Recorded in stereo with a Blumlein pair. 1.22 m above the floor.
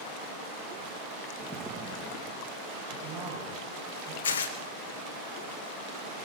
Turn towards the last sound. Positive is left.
turn(degrees=65)